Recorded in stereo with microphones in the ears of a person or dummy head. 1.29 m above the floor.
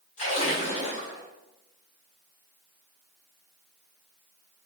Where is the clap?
No clap in this recording.